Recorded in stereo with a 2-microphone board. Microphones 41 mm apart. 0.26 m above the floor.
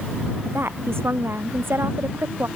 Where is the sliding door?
No sliding door in this recording.